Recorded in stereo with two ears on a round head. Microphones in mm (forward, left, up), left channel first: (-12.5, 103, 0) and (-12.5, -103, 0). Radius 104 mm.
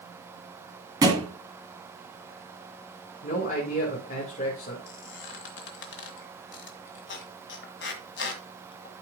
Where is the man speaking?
35° left (ahead or behind), 2.0 m.